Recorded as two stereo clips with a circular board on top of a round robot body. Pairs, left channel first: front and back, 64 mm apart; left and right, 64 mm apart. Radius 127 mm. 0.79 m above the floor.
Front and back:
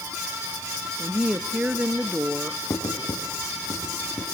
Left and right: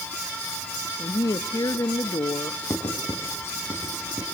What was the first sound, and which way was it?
A woman speaking, 110° left.